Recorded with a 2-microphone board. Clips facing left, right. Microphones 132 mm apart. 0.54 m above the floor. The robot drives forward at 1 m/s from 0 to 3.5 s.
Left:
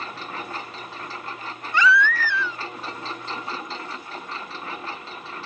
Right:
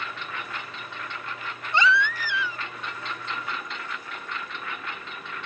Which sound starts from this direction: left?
A lawn mower, at 0.0 s.